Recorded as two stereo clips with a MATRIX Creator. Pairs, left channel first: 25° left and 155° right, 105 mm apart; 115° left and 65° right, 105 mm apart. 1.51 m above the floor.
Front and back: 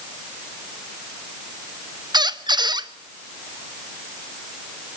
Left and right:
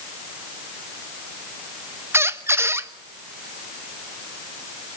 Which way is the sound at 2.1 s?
125° right.